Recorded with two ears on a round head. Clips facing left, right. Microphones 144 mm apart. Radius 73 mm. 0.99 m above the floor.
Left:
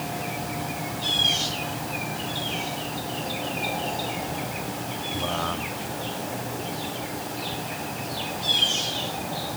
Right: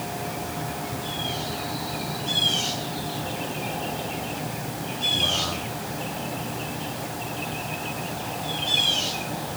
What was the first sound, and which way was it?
Only background noise.